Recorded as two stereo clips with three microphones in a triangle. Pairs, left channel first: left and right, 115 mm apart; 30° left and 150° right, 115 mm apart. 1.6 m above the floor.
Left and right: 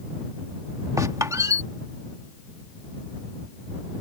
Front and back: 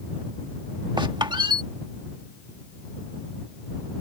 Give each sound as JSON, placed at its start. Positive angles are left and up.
{"t": 1.0, "sound": "a squeak", "azimuth_deg": -140}